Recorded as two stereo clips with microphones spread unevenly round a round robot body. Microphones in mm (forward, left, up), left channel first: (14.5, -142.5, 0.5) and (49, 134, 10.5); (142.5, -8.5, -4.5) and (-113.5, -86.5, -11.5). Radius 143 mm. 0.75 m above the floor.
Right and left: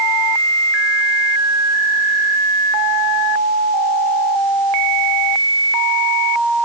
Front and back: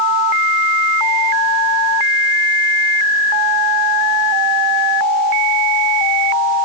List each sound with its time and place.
Only background noise.